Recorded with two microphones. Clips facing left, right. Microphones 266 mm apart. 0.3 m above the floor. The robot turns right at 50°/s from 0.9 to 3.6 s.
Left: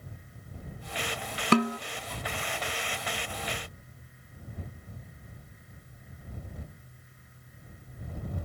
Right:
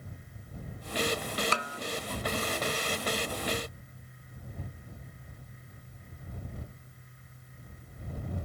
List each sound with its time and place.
1.5 s a snare drum: 65° left (ahead or behind); by 1.8 s 55° left (ahead or behind)